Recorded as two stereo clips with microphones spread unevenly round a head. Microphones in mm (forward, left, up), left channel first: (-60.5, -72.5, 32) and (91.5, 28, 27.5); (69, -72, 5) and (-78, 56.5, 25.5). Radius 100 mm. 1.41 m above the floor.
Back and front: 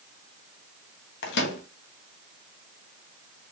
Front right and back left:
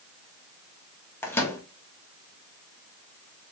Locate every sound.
1.2 s a microwave: 120° right, 0.9 m